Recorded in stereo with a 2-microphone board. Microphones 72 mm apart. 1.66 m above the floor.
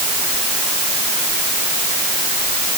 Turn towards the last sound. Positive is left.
No sound to turn to.